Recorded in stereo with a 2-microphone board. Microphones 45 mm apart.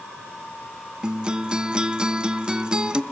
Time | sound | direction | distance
1.0 | a guitar | 20° right (ahead or behind) | 0.8 m